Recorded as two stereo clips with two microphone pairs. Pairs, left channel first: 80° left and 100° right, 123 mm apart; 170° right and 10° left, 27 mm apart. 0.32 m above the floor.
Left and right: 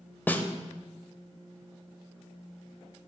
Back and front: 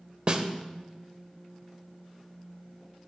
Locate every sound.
0.3 s a snare drum: 20° left, 0.6 m